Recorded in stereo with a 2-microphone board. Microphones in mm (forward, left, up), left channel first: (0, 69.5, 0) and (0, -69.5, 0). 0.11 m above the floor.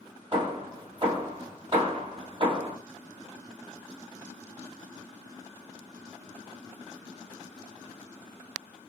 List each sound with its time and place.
0.3 s hammering: 35° right (ahead or behind), 2 m